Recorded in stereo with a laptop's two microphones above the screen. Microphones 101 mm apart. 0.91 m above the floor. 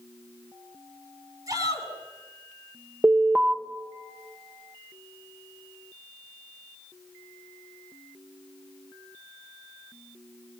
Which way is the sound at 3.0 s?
15° right (ahead or behind).